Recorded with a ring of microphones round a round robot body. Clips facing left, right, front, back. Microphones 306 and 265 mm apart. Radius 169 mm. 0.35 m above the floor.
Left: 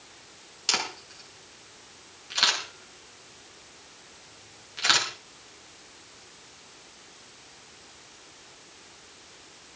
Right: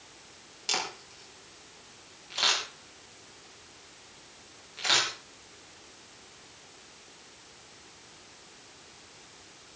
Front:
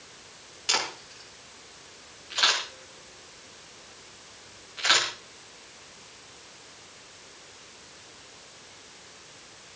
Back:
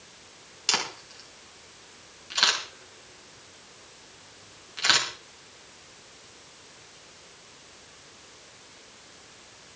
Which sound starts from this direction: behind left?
A camera shutter, at 0.7 s.